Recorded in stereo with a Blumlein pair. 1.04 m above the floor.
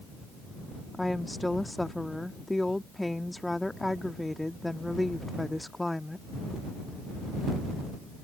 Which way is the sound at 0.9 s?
5° left.